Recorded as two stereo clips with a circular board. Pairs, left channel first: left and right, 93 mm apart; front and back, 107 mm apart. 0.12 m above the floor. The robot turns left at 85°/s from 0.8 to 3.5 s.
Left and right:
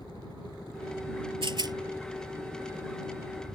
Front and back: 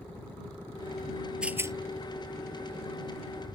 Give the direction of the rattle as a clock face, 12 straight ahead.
3 o'clock.